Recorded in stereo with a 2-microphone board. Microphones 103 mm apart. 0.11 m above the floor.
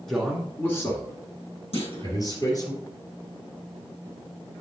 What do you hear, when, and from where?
0.1 s a man speaking: 5° left (ahead or behind), 1.7 m; by 2.7 s 40° left (ahead or behind), 3.5 m
1.7 s a clunk: 75° left (ahead or behind), 3.5 m